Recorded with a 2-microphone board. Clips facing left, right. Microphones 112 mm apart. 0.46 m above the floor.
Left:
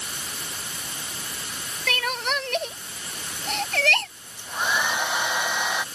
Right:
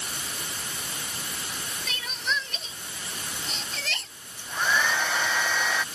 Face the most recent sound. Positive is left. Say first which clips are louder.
# left 1 dB
turn(degrees=20)  # may be behind; listen again after turning